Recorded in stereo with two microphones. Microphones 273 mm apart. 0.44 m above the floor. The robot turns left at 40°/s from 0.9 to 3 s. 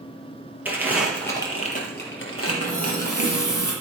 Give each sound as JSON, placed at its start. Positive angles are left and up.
{"t": 0.7, "sound": "crumpling", "side_deg": -5, "distance_m": 3.5}
{"t": 2.5, "sound": "a running tap", "side_deg": 15, "distance_m": 6.5}